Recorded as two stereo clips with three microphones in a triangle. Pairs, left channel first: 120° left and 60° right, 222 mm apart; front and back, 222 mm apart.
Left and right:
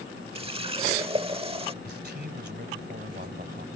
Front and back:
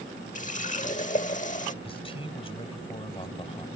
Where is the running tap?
15° right.